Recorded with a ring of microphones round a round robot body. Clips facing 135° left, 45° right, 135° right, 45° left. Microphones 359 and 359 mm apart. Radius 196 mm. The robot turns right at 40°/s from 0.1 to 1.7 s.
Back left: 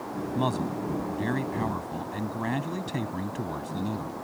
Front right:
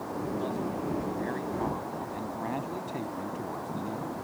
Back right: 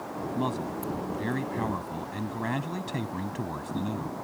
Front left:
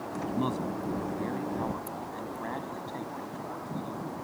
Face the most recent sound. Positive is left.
turn(degrees=-170)